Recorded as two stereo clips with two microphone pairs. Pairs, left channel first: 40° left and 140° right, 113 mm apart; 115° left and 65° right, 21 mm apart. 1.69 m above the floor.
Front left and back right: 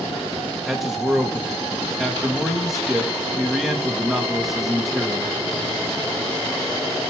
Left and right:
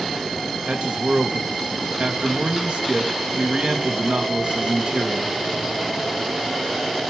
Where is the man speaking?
50° right, 2.5 m.